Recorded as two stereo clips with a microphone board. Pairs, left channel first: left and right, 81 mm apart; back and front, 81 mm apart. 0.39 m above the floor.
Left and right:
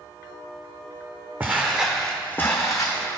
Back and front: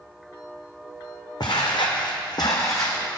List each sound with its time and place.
1.4 s footsteps: 155° right, 1.3 m; by 3.0 s 125° left, 1.4 m